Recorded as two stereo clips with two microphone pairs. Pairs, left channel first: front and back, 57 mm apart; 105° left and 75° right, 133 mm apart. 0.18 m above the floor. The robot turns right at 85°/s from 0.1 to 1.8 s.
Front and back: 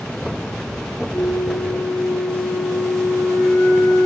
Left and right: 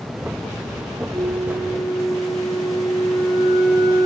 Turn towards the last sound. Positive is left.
turn(degrees=40)